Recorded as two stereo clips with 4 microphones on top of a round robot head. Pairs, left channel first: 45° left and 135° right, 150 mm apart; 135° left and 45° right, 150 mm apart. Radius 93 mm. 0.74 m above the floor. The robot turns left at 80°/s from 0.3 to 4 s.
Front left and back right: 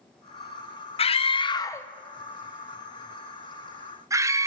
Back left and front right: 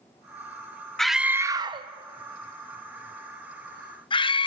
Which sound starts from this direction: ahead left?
A scream, at 1.0 s.